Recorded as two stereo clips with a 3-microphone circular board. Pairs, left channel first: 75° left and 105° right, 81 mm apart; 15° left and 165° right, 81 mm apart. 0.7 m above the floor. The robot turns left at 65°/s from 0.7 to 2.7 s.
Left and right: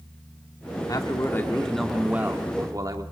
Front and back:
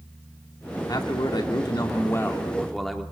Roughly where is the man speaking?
Ahead left.